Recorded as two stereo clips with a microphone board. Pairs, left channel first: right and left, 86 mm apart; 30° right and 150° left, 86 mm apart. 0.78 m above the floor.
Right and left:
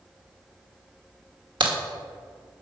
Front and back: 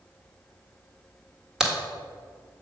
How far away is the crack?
About 1.5 m.